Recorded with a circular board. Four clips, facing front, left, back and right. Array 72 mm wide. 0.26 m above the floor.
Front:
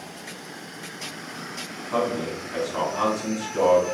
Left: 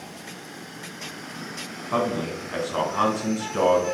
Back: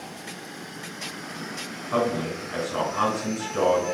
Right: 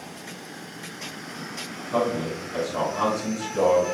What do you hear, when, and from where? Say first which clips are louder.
1.9 s a man speaking: even, even; 105° left, 1.6 m